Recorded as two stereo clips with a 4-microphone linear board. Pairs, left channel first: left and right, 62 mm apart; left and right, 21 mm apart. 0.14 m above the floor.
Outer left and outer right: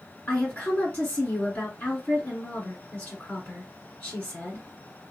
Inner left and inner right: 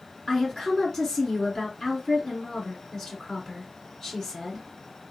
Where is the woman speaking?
25° left (ahead or behind), 1.8 m.